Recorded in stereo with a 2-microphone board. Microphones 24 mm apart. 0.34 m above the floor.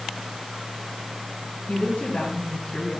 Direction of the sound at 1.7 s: 65° left (ahead or behind).